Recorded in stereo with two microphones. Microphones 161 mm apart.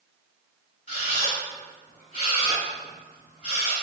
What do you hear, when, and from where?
0.9 s a camera shutter: 40° left (ahead or behind), 1.4 m